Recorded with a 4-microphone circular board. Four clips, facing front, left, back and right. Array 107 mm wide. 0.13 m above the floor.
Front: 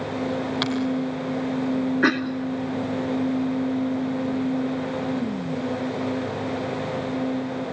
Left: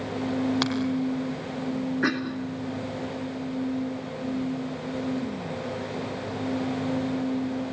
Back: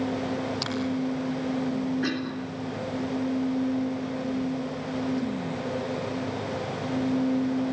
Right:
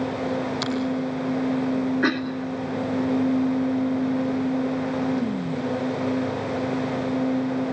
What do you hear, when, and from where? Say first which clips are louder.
0.6 s a finger snap: even, front 7 dB; 60° left, 4 m
2.0 s a cough: right 3 dB, front 7 dB; 10° right, 2 m